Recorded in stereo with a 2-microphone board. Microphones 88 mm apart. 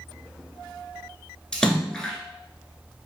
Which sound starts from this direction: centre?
A splash, at 1.5 s.